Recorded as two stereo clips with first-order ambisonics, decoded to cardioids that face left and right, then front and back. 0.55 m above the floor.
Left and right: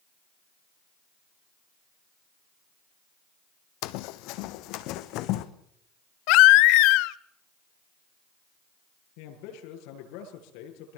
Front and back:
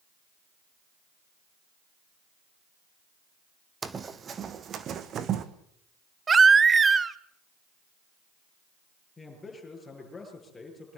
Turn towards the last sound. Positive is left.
turn(degrees=80)